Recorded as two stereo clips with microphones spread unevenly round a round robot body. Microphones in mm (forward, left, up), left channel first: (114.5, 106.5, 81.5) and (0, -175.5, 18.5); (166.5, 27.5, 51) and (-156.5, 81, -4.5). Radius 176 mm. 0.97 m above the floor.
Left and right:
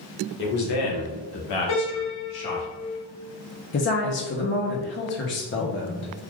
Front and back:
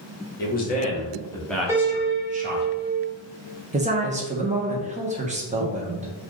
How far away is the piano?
About 1.4 m.